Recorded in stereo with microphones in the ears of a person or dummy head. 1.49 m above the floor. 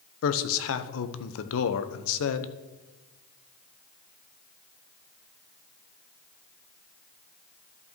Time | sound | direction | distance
0.2 | a man speaking | 80° left | 0.8 m